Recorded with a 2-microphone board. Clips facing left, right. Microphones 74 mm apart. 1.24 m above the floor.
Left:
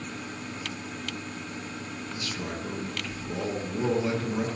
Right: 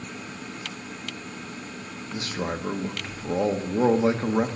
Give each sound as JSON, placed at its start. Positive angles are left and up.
{"t": 2.1, "sound": "a man speaking", "side_deg": -45, "distance_m": 1.1}